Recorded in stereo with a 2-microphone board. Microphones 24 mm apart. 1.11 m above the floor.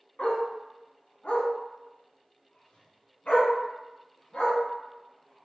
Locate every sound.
0.2 s a dog barking: 50° left (ahead or behind), 2.5 m; by 5.5 s 65° left (ahead or behind), 3.5 m